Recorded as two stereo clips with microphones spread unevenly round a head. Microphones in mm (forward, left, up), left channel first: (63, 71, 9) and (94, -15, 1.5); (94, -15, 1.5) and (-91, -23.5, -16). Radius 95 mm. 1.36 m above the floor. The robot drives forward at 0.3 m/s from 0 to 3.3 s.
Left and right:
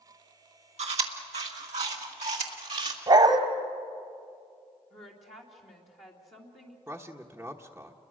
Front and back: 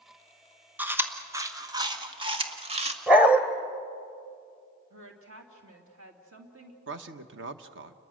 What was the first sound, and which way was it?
Chewing, 95° right.